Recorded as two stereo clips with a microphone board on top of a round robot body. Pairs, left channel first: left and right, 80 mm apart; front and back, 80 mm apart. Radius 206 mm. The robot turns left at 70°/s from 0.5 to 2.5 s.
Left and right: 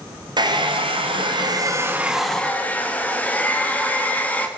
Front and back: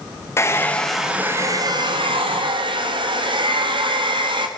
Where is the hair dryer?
60° right, 1.5 m; by 4.5 s 160° left, 1.5 m.